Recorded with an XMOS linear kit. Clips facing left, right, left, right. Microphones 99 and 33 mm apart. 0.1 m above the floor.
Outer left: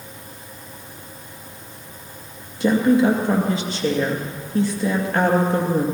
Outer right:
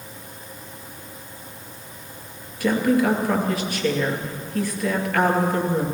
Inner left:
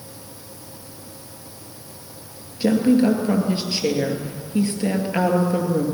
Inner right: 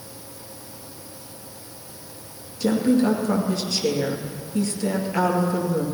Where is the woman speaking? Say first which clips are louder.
Outer left 3 dB, inner left 3 dB; 25° left (ahead or behind), 2.5 m.